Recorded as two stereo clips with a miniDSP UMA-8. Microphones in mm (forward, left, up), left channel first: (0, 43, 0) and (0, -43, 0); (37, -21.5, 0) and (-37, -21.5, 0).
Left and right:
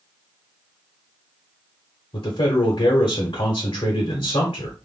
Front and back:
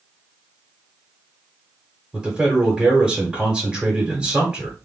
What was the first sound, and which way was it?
A man speaking, 100° left.